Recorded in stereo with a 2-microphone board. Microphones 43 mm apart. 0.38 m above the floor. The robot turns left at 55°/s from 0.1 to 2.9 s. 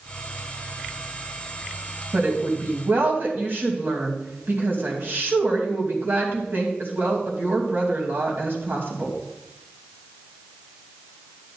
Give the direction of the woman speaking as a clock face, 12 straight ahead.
2 o'clock.